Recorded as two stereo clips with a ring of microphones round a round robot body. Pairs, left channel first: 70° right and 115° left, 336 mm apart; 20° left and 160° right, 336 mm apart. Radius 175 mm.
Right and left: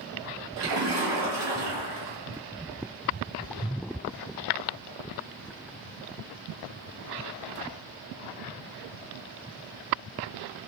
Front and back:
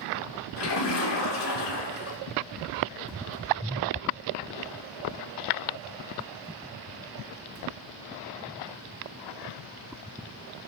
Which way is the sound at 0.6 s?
70° left.